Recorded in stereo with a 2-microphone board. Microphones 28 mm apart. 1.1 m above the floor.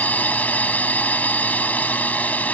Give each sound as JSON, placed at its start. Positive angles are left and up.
{"t": 0.0, "sound": "a drone", "side_deg": 65}